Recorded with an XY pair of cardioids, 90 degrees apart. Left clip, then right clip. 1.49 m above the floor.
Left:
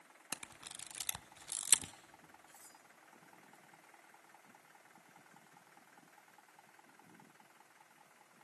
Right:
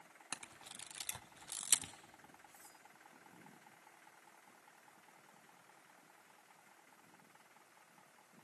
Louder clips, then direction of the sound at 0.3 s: Left 2 dB; 40° left.